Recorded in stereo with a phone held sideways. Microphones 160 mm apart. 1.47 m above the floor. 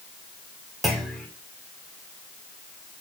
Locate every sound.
0.8 s a clunk: centre (ahead or behind), 2 m